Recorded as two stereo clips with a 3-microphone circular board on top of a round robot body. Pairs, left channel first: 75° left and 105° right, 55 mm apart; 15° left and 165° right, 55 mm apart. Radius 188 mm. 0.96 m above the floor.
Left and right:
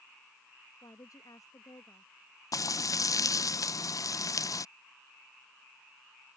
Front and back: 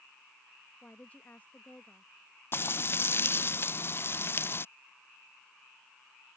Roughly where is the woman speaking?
Left.